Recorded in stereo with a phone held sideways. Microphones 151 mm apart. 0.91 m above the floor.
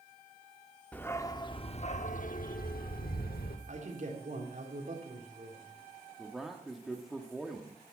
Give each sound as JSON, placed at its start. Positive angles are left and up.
{"t": 0.9, "sound": "a dog barking", "side_deg": 10, "distance_m": 0.8}
{"t": 3.7, "sound": "a man speaking", "side_deg": -55, "distance_m": 3.0}
{"t": 6.2, "sound": "a man speaking", "side_deg": 0, "distance_m": 1.3}